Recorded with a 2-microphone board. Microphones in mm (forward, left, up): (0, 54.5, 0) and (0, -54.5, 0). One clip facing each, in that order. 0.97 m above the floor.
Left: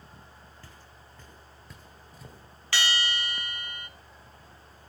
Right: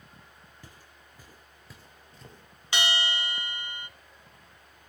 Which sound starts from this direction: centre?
Footsteps, at 0.6 s.